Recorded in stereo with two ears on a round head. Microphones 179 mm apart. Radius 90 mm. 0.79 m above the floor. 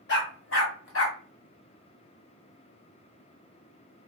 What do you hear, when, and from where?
0.1 s a dog barking: 60° left (ahead or behind), 1.3 m; by 1.2 s 75° left (ahead or behind), 1.5 m